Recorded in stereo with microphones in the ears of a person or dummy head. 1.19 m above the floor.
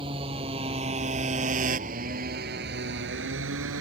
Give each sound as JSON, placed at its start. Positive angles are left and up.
{"t": 0.0, "sound": "a motorcycle", "side_deg": -30}